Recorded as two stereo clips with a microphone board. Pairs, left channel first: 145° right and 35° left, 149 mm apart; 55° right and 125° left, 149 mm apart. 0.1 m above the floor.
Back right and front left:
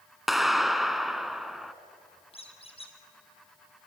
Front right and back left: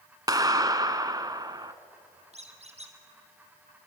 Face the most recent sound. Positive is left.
turn(degrees=165)